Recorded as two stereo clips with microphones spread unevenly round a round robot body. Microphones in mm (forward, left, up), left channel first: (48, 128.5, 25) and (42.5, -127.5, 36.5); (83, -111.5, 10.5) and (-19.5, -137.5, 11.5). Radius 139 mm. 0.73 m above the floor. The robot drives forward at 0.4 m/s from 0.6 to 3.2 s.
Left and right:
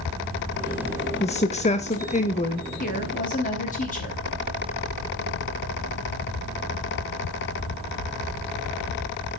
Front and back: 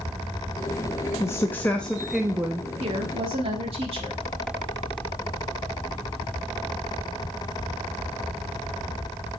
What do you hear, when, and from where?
1.2 s a woman speaking: 50° left, 0.8 m; by 2.7 s 135° left, 0.8 m
2.8 s a woman speaking: 145° left, 1.1 m; by 4.2 s 150° left, 1.2 m